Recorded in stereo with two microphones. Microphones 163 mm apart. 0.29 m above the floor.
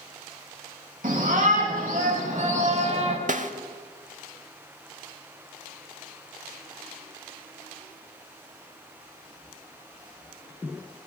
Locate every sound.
1.0 s a shout: 60° right (ahead or behind), 2.5 m; by 3.2 s 45° right (ahead or behind), 1.6 m
3.3 s a snare drum: 50° right (ahead or behind), 0.6 m